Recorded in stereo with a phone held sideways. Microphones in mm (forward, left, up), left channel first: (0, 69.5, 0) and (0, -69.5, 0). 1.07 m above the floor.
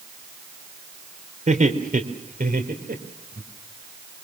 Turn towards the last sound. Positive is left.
turn(degrees=-75)  # may be behind; listen again after turning